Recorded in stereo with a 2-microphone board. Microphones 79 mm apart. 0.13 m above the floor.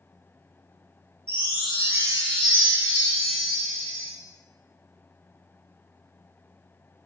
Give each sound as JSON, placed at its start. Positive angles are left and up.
{"t": 1.3, "sound": "a chime", "side_deg": -25, "distance_m": 1.6}